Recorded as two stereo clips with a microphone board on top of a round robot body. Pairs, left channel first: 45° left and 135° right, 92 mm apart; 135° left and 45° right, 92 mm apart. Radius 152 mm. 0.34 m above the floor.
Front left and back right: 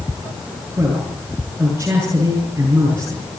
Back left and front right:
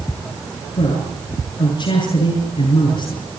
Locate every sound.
0.8 s a man speaking: 155° left, 8 m